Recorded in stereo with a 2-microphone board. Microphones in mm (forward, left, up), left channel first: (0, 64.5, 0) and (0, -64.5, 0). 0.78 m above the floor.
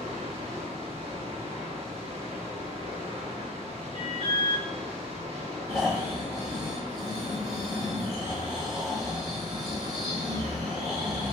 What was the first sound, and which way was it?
Running water, 50° right (ahead or behind).